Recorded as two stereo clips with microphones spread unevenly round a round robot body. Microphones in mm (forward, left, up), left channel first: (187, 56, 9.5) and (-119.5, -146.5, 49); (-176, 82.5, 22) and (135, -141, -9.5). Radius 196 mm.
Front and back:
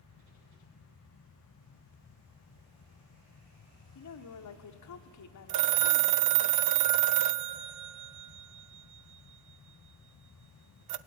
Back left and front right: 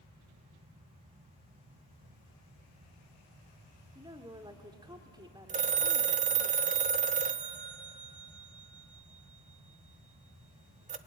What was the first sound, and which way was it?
A woman speaking, 40° left.